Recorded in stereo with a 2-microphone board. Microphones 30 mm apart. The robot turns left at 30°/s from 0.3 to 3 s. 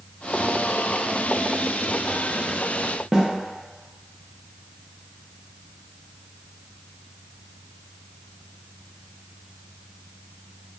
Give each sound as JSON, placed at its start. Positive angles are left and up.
{"t": 3.1, "sound": "a snare drum", "side_deg": -20, "distance_m": 0.6}